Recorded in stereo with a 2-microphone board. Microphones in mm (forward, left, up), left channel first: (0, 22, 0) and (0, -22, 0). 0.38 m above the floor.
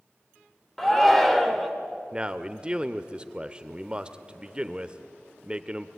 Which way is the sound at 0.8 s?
5° left (ahead or behind).